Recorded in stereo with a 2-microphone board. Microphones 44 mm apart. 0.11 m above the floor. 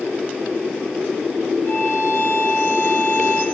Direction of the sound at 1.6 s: 75° left (ahead or behind).